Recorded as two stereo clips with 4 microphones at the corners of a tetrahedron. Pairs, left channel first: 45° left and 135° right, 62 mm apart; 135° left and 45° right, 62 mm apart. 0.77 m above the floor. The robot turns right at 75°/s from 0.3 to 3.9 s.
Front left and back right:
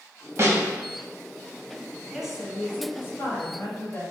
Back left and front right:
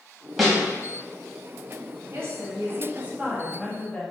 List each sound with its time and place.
0.4 s a snare drum: 130° right, 0.7 m; by 0.6 s 115° right, 0.7 m
2.1 s a woman speaking: 60° right, 0.8 m; by 4.0 s 70° left, 0.8 m